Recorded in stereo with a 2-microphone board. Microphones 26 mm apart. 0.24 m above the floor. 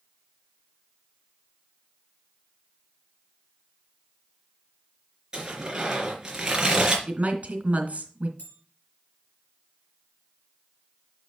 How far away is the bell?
About 4 m.